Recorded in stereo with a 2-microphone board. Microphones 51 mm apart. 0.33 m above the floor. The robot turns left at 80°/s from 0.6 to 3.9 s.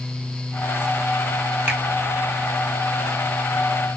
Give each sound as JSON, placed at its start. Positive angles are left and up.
{"t": 1.7, "sound": "a finger snap", "side_deg": -25, "distance_m": 2.0}